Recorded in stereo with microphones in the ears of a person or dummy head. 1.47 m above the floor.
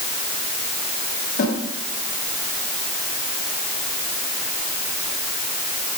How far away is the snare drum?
About 6.5 m.